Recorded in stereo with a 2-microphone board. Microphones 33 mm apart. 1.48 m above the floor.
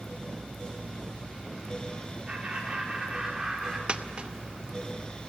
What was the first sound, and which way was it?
Laughter, 30° right (ahead or behind).